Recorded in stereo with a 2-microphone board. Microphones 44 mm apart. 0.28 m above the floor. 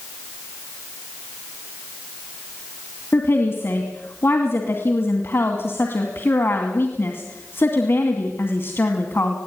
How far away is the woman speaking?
About 2.5 m.